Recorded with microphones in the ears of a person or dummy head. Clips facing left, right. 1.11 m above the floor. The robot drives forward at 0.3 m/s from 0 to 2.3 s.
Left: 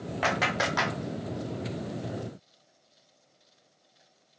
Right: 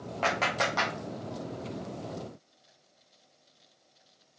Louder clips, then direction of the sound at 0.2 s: Left 1 dB; 15° left (ahead or behind).